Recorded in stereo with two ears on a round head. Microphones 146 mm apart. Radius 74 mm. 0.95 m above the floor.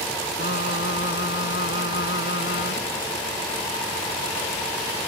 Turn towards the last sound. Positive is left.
turn(degrees=65)  # may be behind; listen again after turning